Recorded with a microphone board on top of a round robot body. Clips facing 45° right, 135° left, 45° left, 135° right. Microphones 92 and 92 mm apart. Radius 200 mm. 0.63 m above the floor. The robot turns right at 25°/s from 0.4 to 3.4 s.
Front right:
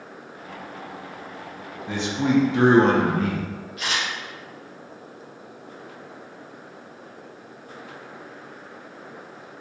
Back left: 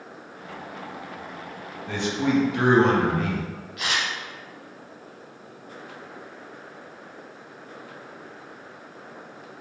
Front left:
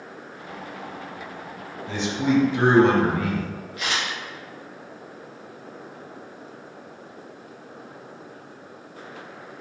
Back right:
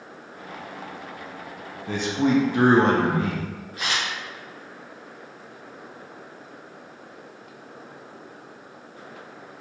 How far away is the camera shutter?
About 0.8 m.